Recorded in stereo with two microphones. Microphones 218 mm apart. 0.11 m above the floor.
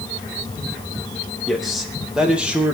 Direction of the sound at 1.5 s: Centre (ahead or behind).